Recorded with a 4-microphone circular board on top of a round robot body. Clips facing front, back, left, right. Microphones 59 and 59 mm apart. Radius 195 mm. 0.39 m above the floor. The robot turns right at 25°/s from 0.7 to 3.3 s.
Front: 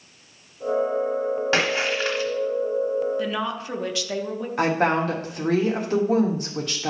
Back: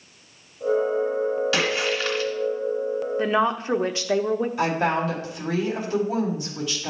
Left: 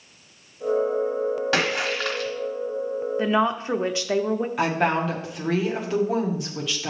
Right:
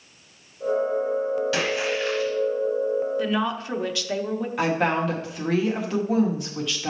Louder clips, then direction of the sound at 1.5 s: Front 1 dB, left 1 dB; 55° left.